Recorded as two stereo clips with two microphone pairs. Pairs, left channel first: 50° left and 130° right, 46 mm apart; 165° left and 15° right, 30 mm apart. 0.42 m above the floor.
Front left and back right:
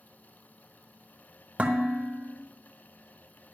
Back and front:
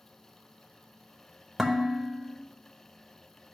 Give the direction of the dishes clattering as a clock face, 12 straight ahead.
3 o'clock.